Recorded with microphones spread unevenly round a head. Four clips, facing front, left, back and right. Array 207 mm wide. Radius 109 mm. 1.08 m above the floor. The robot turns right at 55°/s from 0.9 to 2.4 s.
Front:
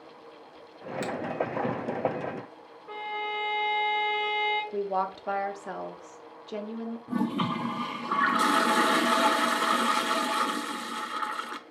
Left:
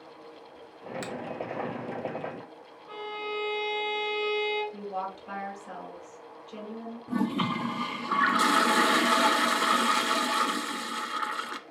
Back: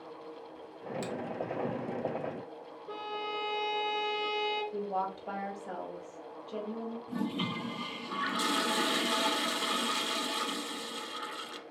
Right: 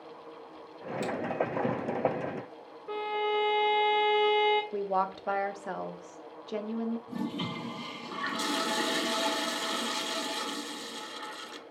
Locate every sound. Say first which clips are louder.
1.0 s a finger snap: right 6 dB, front 6 dB; 35° left, 2 m; by 1.1 s 45° left, 2 m
2.9 s a violin: right 5 dB, front 4 dB; 110° right, 0.6 m
4.7 s a woman speaking: right 5 dB, front 5 dB; 45° right, 1.1 m
7.1 s a toilet flushing: left 6 dB, front 7 dB; 45° left, 0.5 m